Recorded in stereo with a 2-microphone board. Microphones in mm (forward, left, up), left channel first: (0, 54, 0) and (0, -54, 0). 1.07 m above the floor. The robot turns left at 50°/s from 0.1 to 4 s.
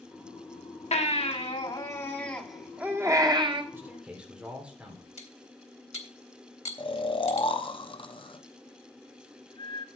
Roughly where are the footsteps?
No footsteps in this recording.